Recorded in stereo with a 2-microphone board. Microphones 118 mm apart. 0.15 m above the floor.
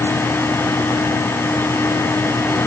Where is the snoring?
I don't hear snoring.